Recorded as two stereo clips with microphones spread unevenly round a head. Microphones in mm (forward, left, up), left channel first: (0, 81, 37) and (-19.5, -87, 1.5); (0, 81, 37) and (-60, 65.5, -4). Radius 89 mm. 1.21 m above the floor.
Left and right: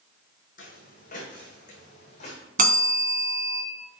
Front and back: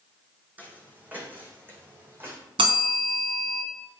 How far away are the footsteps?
About 4.5 m.